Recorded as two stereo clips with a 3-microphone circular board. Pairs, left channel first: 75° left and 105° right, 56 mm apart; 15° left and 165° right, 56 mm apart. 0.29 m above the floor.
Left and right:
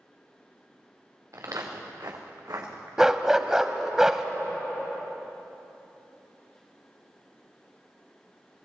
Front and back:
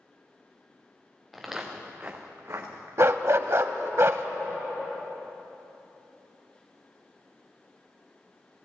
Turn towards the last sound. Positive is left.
turn(degrees=175)